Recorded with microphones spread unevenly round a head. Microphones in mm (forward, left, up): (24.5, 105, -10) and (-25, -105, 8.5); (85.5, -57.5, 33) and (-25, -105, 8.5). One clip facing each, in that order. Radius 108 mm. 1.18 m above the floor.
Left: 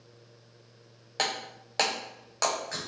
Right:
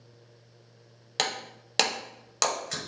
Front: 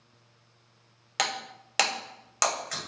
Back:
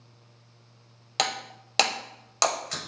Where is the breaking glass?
90° right, 1.4 m.